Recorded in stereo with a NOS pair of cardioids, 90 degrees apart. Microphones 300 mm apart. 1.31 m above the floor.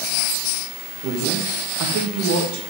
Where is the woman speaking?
70° right, 1.6 m.